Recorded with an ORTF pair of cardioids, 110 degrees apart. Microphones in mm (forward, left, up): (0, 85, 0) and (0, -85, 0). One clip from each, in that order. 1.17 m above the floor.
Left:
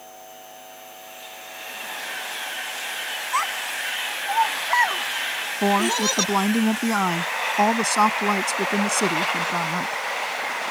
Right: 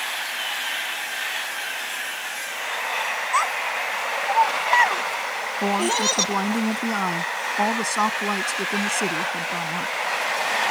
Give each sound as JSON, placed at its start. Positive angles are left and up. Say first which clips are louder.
{"t": 3.3, "sound": "a child speaking", "louder": "right 2 dB", "azimuth_deg": -15}
{"t": 5.6, "sound": "a woman speaking", "louder": "left 1 dB", "azimuth_deg": 20}